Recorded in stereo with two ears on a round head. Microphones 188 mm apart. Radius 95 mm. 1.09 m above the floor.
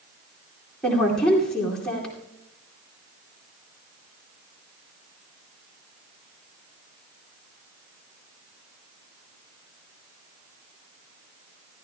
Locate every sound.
0.8 s a woman speaking: 5° left (ahead or behind), 2.5 m